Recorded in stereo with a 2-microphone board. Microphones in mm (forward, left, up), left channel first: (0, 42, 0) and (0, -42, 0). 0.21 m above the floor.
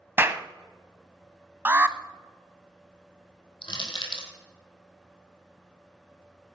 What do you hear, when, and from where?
0.2 s a clap: 30° right (ahead or behind), 0.8 m
1.6 s an alarm: 25° right (ahead or behind), 0.7 m
3.6 s crushing: 80° left, 3 m